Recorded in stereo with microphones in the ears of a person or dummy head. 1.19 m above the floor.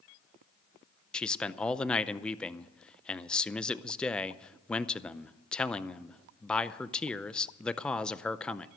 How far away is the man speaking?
About 0.6 m.